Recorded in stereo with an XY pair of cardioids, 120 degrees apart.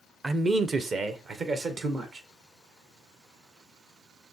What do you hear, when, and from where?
0.2 s a man speaking: 20° right, 0.8 m; by 2.2 s 50° right, 2 m